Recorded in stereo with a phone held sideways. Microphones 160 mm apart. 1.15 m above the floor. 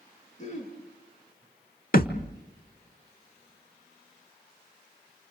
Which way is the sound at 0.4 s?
45° left (ahead or behind).